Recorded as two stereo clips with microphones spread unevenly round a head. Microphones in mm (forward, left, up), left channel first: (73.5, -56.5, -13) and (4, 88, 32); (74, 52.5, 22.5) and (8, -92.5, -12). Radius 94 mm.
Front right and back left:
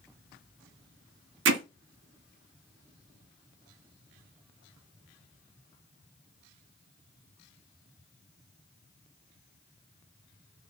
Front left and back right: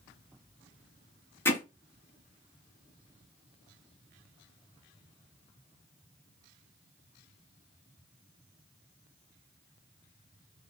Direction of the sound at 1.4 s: 145° left.